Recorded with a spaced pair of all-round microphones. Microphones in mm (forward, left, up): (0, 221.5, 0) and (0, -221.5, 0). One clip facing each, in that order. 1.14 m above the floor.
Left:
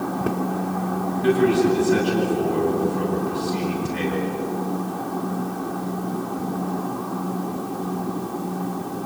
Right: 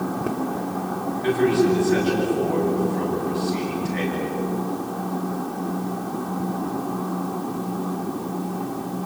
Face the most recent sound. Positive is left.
turn(degrees=50)  # may be behind; listen again after turning